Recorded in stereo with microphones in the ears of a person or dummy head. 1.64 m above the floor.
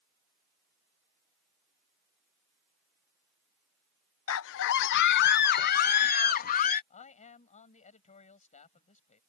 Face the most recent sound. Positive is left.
turn(degrees=35)  # may be behind; listen again after turning